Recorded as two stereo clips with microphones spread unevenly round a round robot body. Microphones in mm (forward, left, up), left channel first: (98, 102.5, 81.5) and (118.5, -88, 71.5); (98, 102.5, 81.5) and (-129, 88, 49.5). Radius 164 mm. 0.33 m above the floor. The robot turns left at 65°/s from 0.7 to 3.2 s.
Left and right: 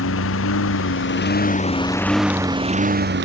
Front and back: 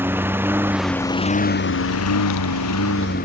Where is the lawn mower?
105° left; by 3.3 s 60° right.